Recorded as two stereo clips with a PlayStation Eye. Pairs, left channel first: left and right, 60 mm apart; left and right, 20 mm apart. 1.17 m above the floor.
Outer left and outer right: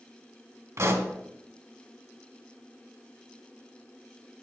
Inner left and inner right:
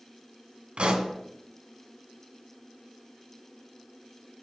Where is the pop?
50° right (ahead or behind), 1.5 m.